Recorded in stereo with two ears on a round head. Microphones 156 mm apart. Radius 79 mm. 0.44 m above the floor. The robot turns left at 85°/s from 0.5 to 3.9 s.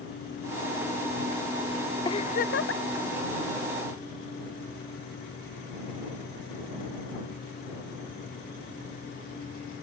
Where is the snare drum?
No snare drum in this recording.